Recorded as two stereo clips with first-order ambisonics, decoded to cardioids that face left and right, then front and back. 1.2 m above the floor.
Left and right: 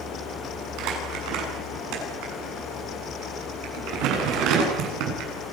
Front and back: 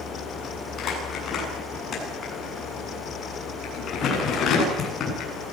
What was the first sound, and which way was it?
Crumpling, 60° right.